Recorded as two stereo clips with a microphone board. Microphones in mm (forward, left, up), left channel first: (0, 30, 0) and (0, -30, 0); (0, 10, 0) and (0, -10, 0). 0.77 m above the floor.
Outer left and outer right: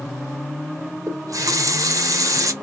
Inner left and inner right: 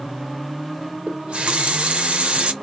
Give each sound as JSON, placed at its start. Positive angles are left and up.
{"t": 1.1, "sound": "a running tap", "side_deg": -70, "distance_m": 0.6}